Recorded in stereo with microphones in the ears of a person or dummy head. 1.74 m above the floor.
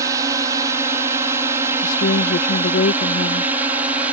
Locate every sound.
0.0 s a drone: 20° right (ahead or behind); by 4.1 s 10° right (ahead or behind)
1.8 s a woman speaking: 50° left (ahead or behind)